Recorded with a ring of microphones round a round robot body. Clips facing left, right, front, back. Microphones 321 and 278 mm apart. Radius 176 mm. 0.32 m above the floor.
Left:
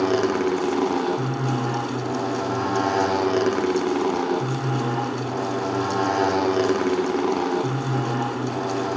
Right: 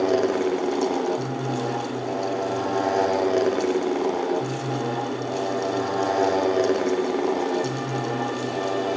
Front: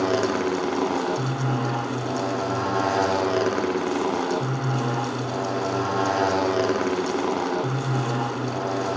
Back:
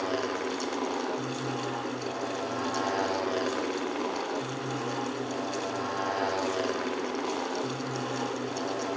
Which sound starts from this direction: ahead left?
A motorcycle, at 0.0 s.